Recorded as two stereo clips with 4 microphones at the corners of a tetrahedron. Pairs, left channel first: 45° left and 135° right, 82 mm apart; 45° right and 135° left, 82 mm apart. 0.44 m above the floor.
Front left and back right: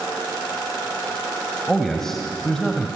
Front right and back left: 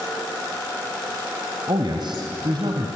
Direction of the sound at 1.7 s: 130° left.